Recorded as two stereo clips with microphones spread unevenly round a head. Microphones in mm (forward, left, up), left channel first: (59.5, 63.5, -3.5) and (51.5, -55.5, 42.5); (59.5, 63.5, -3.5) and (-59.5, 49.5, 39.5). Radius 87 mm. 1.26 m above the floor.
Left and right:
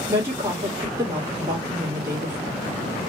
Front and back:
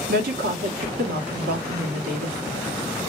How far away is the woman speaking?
About 1.2 m.